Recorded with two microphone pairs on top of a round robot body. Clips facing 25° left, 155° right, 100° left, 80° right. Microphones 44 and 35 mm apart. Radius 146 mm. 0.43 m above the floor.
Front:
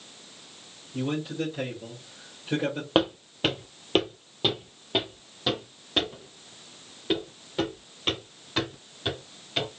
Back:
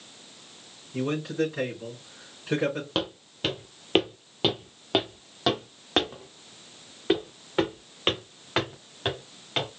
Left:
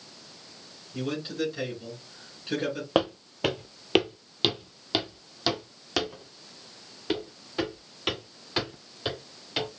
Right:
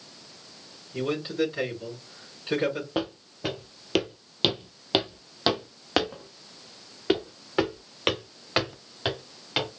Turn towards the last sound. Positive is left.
turn(degrees=-125)